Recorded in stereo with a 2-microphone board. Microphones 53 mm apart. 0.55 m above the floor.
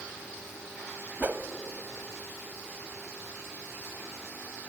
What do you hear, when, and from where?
1.2 s a whoosh: 40° right (ahead or behind), 1.2 m